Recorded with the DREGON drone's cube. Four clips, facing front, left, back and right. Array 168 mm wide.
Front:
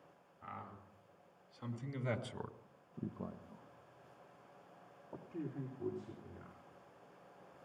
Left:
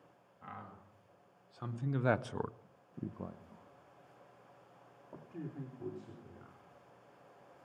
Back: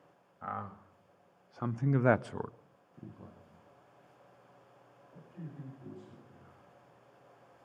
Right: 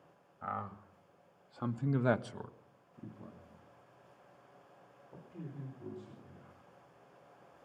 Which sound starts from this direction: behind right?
A man speaking, at 0.4 s.